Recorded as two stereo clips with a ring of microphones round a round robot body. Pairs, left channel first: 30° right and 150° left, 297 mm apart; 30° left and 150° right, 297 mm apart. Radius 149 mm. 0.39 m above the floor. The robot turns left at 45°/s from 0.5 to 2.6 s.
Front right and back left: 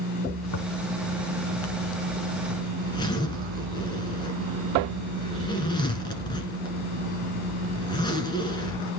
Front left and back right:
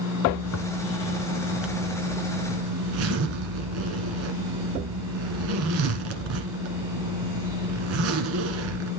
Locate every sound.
0.4 s a zipper: 10° right, 1.4 m; by 8.9 s 105° right, 1.4 m